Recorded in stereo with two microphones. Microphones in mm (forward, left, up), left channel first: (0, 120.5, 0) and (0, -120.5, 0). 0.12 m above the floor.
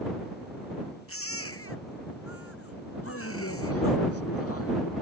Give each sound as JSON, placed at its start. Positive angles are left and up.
{"t": 1.1, "sound": "a baby crying", "side_deg": 65}
{"t": 3.0, "sound": "a man speaking", "side_deg": 75}